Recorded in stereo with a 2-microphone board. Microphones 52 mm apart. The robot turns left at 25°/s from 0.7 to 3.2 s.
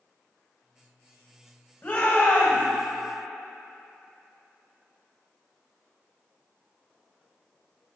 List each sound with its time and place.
1.8 s a shout: 40° left (ahead or behind), 1.4 m; by 2.6 s 35° left (ahead or behind), 1.4 m